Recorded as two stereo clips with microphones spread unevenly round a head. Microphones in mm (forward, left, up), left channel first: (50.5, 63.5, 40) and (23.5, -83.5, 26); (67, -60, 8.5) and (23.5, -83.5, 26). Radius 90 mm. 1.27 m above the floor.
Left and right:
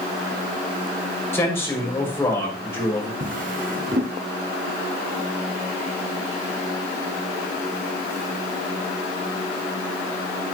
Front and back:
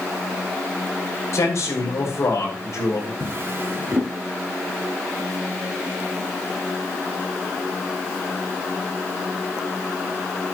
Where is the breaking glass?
I don't hear breaking glass.